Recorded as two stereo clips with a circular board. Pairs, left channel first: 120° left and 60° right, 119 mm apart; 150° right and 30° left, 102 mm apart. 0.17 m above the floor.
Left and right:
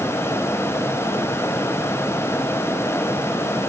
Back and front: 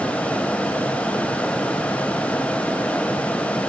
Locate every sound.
Only background noise.